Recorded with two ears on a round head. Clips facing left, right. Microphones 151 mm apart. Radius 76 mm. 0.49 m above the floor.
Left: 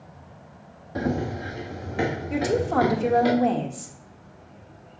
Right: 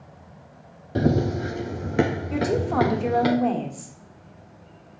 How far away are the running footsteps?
About 0.7 m.